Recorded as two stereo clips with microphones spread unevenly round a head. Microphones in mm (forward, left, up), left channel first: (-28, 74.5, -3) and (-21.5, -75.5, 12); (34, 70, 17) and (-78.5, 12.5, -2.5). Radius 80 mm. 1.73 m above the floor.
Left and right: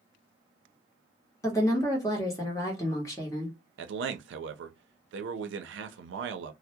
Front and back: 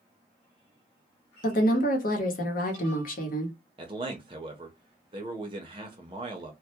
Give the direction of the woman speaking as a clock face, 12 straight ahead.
11 o'clock.